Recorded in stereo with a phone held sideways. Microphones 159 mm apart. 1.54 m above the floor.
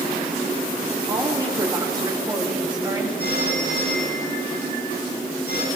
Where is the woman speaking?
25° right (ahead or behind), 3 m; by 3.1 s 30° right (ahead or behind), 4.5 m.